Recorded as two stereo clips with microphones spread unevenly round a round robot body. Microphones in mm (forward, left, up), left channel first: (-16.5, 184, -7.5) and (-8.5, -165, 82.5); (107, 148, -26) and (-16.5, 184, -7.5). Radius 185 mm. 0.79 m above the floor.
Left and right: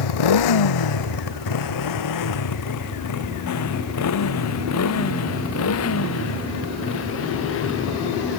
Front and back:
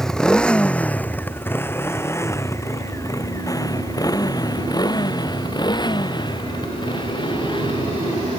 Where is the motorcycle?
70° left; by 8.4 s 35° left.